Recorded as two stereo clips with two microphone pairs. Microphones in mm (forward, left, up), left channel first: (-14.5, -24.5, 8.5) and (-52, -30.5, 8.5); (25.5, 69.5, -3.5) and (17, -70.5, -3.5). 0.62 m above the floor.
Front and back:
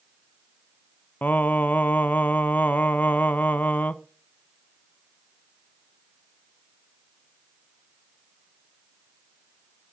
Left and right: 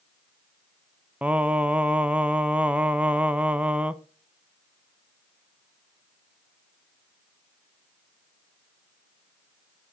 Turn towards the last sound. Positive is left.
turn(degrees=-15)